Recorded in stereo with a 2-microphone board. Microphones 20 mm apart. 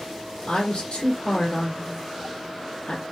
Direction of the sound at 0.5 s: 55° left (ahead or behind).